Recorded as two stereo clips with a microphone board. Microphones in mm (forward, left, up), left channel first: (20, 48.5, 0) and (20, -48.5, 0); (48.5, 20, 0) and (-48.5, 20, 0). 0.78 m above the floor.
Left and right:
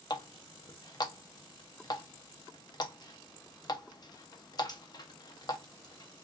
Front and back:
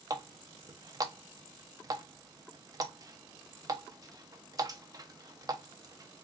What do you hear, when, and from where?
0.1 s a running tap: 130° left, 0.5 m